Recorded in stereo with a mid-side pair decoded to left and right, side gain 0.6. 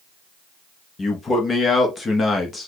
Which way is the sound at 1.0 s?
25° left.